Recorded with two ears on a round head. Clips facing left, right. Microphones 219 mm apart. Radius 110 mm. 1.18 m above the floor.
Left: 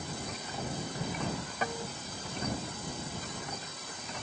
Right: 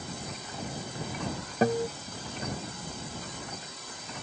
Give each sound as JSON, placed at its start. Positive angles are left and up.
{"t": 1.6, "sound": "a guitar", "side_deg": -35}